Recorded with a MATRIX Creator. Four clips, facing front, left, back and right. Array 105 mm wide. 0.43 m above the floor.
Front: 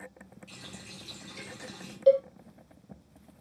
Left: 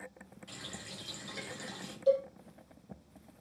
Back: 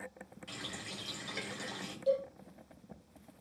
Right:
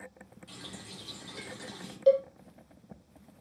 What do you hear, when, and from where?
0.5 s a running tap: 165° left, 6.5 m
2.1 s a cowbell: 50° right, 2.5 m